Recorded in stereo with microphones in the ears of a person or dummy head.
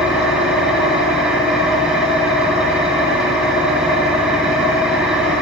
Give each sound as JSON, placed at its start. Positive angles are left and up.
{"t": 0.0, "sound": "an engine running", "side_deg": -10, "distance_m": 2.5}